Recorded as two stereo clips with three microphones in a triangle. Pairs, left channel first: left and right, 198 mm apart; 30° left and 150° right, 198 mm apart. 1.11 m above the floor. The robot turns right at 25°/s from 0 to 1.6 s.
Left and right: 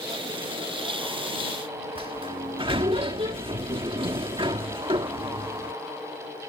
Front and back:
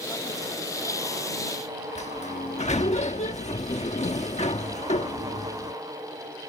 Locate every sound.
1.9 s a sliding door: 25° right